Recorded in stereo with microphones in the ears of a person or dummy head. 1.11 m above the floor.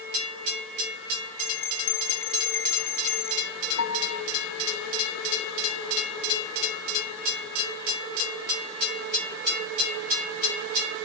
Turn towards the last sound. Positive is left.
turn(degrees=75)  # may be behind; listen again after turning